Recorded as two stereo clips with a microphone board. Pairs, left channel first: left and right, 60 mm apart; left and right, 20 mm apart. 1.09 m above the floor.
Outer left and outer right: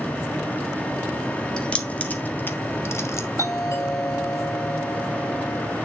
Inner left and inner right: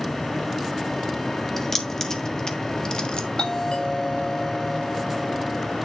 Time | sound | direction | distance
1.6 | keys jangling | 15° left (ahead or behind) | 1.6 m
3.4 | a doorbell | 55° left (ahead or behind) | 6.5 m